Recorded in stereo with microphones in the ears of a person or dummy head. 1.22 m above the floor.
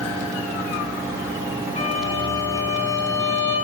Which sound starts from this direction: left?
A violin, at 1.8 s.